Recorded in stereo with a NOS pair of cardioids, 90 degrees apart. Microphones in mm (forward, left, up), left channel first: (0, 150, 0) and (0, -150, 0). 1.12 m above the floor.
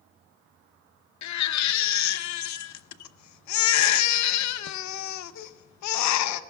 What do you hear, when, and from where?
1.2 s a baby crying: 70° left, 0.7 m